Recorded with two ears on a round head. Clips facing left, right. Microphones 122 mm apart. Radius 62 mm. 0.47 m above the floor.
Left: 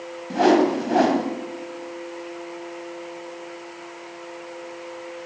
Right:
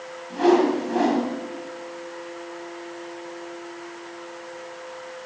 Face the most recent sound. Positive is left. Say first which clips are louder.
# left 1 dB
turn(degrees=60)  # may be behind; listen again after turning